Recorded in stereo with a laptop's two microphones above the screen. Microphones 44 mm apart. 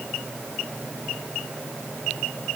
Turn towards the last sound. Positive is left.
No sound to turn to.